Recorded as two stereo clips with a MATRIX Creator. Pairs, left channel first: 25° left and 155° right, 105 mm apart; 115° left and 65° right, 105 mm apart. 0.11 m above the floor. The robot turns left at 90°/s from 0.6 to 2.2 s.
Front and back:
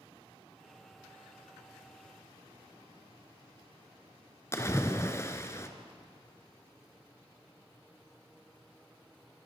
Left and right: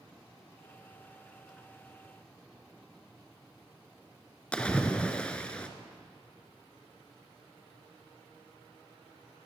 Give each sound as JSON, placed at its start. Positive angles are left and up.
{"t": 4.5, "sound": "a splash", "azimuth_deg": 45, "distance_m": 1.4}